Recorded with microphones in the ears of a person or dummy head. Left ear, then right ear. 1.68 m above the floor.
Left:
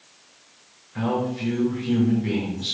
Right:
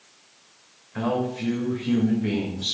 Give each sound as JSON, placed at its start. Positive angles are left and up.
{"t": 0.9, "sound": "a man speaking", "side_deg": -30, "distance_m": 2.5}